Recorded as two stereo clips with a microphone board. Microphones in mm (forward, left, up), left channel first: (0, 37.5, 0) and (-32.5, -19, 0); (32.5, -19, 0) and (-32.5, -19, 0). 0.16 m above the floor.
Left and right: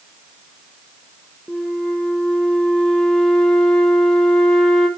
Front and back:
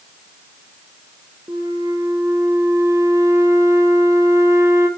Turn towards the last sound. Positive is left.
turn(degrees=145)